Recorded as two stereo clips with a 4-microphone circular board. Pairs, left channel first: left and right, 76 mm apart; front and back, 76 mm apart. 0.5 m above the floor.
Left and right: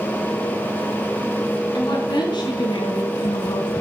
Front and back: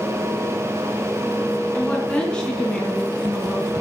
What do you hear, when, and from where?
1.7 s a woman speaking: 70° left, 5 m; by 3.7 s 95° left, 4 m